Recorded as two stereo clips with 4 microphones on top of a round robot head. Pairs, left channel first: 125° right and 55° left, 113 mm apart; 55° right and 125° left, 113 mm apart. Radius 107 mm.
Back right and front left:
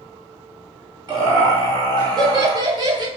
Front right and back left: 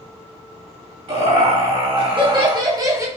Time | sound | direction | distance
1.1 | laughter | 105° left | 2 m